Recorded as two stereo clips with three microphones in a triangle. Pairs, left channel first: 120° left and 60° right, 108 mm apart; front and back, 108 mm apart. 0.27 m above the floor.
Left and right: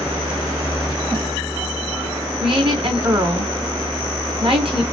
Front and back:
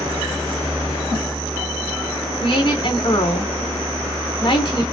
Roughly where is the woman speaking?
Ahead right.